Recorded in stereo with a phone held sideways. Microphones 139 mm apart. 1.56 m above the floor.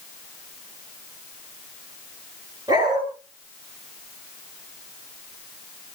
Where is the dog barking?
30° right (ahead or behind), 9 m.